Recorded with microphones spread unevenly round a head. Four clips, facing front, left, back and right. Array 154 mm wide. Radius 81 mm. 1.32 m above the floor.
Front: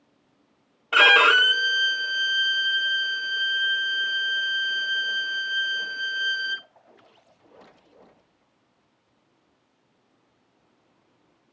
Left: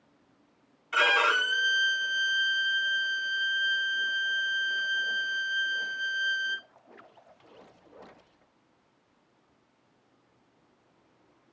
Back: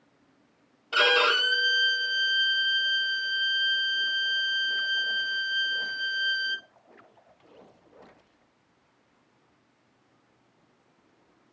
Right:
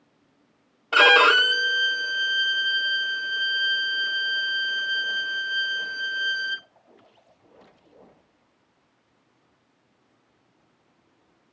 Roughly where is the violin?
Right.